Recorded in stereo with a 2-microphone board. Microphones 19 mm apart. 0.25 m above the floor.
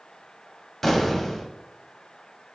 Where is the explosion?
15° left (ahead or behind), 0.9 m.